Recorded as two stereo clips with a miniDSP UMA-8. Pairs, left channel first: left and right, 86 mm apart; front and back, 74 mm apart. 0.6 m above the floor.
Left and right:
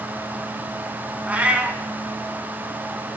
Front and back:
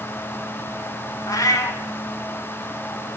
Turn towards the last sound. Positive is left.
turn(degrees=-20)